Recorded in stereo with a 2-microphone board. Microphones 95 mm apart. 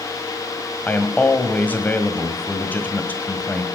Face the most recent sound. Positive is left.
turn(degrees=15)  # may be behind; listen again after turning